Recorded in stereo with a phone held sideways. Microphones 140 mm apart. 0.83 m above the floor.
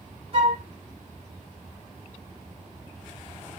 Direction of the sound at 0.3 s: 40° right (ahead or behind).